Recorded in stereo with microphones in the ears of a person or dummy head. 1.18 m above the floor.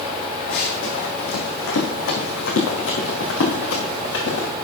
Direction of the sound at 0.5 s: 60° left (ahead or behind).